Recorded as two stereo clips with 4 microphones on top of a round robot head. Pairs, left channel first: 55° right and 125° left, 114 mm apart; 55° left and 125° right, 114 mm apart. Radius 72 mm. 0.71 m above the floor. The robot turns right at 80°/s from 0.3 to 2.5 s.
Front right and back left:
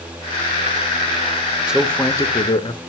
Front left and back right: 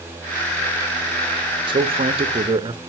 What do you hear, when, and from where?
1.7 s a man speaking: 155° right, 1.3 m; by 2.8 s 90° right, 1.3 m